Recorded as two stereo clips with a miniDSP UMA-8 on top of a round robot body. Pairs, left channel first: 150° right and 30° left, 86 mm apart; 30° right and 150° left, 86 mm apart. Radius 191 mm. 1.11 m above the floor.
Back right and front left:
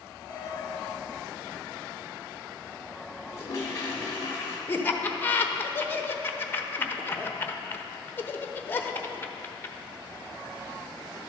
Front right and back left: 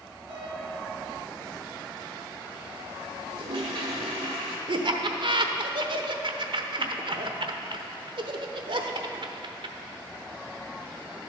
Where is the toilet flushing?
155° left, 1.0 m.